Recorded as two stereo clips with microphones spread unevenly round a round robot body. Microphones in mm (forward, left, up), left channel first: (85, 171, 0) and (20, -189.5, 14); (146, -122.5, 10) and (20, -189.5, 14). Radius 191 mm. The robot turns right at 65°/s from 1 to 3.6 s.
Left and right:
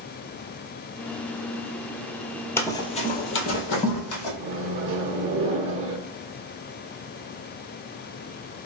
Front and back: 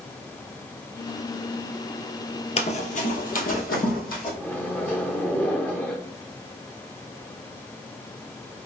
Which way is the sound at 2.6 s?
5° right.